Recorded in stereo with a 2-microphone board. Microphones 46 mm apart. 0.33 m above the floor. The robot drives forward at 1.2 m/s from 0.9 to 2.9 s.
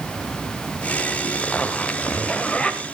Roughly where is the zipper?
Left.